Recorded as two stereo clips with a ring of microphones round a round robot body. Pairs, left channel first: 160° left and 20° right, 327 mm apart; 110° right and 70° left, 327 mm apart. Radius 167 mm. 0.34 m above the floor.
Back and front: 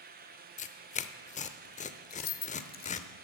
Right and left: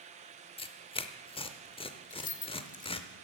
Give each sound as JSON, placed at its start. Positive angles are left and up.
{"t": 0.6, "sound": "tearing paper", "azimuth_deg": -165, "distance_m": 0.7}
{"t": 2.1, "sound": "keys jangling", "azimuth_deg": -165, "distance_m": 1.0}